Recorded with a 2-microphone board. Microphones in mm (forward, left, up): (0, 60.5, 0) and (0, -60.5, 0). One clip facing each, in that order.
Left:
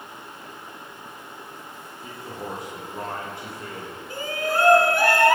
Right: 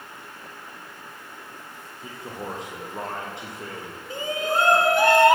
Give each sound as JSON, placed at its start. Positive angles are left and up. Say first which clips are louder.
{"t": 2.0, "sound": "a man speaking", "louder": "even", "side_deg": -20, "distance_m": 9.0}
{"t": 4.1, "sound": "a shout", "louder": "right 1 dB", "side_deg": -20, "distance_m": 3.0}